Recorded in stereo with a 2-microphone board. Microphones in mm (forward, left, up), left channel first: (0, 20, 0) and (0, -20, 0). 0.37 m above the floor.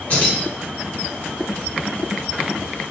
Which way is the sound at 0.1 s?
35° left (ahead or behind).